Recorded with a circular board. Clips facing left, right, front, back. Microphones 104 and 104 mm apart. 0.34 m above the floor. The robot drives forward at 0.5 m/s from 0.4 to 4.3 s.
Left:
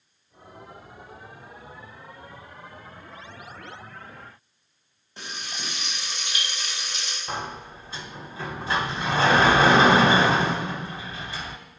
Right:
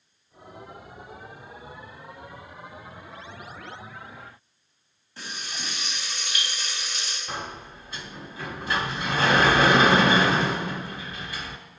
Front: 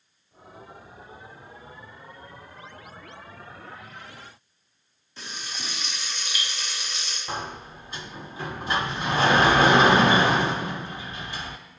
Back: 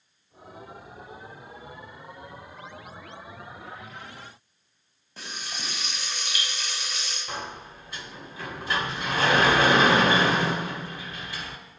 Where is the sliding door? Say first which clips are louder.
Left 3 dB, front 4 dB; 50° left, 0.7 m.